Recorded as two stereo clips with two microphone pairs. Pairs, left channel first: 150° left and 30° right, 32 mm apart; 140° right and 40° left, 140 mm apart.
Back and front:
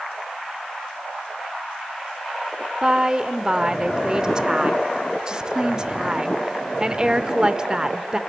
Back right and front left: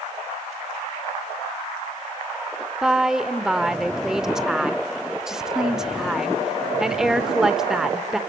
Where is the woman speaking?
40° right, 0.8 m.